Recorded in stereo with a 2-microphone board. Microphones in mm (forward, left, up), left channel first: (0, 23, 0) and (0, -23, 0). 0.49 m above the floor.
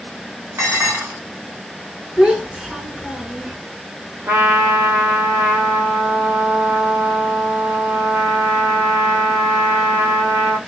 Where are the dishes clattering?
75° right (ahead or behind), 2.5 m.